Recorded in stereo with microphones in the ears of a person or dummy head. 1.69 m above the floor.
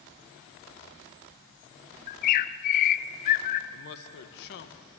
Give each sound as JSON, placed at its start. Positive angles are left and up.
{"t": 2.1, "sound": "a bird", "side_deg": 55, "distance_m": 0.5}
{"t": 3.7, "sound": "a man speaking", "side_deg": 65, "distance_m": 1.4}